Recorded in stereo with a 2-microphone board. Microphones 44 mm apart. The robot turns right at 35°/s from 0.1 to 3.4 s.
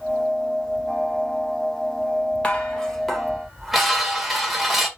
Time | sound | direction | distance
2.4 | dishes clattering | 150° left | 1.3 m